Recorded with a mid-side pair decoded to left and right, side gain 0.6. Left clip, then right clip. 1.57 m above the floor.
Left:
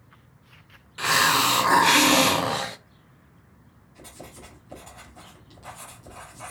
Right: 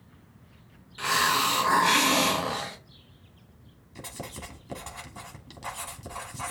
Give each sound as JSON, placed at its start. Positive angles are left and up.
{"t": 1.0, "sound": "a hiss", "azimuth_deg": 30, "distance_m": 0.8}
{"t": 4.0, "sound": "writing", "azimuth_deg": -50, "distance_m": 3.0}